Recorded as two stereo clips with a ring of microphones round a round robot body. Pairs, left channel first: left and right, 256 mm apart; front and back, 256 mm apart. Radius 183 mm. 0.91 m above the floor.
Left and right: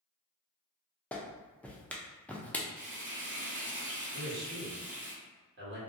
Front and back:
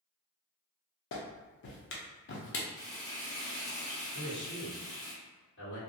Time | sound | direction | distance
1.1 | a clap | 5° left | 0.6 m
2.8 | frying | 60° right | 1.0 m
4.1 | a man speaking | 50° right | 1.4 m